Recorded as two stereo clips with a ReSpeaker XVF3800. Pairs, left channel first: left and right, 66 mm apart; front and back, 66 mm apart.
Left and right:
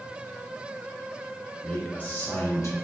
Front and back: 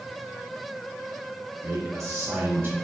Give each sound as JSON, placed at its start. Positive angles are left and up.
{"t": 1.6, "sound": "a man speaking", "azimuth_deg": 160, "distance_m": 1.4}